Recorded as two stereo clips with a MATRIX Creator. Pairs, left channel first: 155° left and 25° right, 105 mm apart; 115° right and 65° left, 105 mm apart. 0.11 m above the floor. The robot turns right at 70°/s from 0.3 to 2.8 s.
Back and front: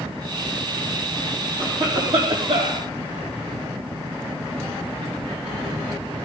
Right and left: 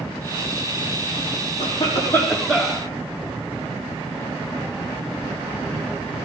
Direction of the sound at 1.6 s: 85° right.